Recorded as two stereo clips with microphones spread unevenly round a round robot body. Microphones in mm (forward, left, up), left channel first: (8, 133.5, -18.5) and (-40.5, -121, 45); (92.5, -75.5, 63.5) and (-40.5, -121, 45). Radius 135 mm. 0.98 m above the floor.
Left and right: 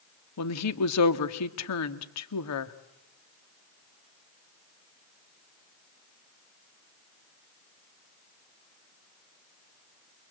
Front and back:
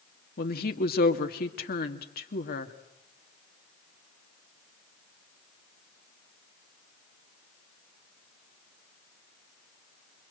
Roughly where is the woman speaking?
Ahead left.